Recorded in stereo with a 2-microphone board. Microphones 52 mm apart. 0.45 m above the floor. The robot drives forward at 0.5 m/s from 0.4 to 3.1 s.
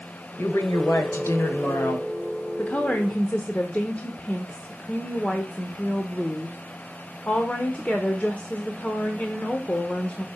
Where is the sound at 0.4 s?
50° left (ahead or behind), 1.6 m; by 2.1 s 60° left (ahead or behind), 1.4 m.